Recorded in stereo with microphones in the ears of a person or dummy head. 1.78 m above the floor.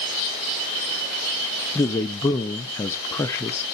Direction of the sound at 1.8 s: 15° left (ahead or behind).